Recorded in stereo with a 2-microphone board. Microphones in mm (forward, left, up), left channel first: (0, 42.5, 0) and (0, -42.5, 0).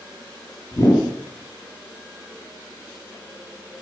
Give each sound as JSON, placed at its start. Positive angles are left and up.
{"t": 0.7, "sound": "a whoosh", "side_deg": 40, "distance_m": 5.0}